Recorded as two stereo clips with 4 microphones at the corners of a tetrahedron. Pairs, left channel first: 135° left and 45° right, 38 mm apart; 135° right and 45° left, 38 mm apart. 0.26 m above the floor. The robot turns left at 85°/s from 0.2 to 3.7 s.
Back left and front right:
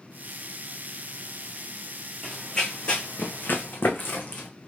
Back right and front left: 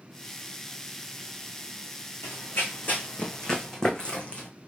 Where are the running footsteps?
130° right, 1.1 m; by 4.5 s 175° left, 1.1 m.